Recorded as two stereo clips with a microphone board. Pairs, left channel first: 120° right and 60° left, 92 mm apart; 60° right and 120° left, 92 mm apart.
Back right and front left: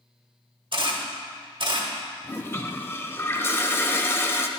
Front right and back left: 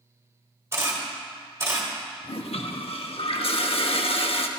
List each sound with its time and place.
0.7 s a camera shutter: 65° left, 1.2 m
2.2 s a toilet flushing: 55° right, 0.5 m